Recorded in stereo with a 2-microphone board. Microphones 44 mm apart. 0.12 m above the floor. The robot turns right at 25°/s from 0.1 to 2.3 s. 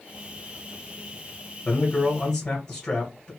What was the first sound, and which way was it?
A man speaking, 20° left (ahead or behind).